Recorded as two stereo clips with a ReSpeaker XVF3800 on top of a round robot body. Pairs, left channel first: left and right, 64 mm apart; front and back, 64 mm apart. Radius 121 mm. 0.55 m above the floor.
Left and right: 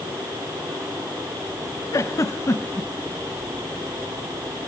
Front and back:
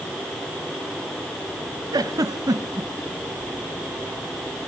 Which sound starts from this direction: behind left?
A giggle, at 1.9 s.